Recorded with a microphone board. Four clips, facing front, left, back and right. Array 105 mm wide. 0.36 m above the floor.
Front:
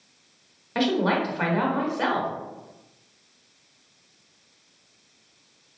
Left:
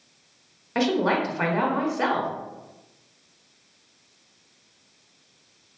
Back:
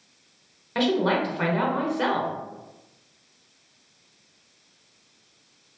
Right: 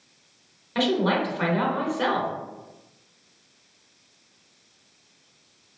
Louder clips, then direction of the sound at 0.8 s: Even, even; 80° left.